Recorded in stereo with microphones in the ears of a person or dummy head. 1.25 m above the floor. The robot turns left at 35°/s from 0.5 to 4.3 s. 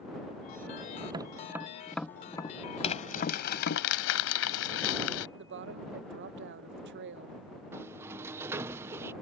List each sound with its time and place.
1.1 s tapping: 20° right (ahead or behind); by 3.8 s 60° left (ahead or behind)
2.8 s crumpling: 140° left; by 5.3 s 90° left
5.4 s a woman speaking: 55° right (ahead or behind)
7.7 s a sliding door: 15° right (ahead or behind)